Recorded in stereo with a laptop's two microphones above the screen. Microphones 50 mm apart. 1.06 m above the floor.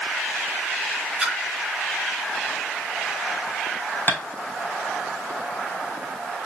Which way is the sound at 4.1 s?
45° left (ahead or behind).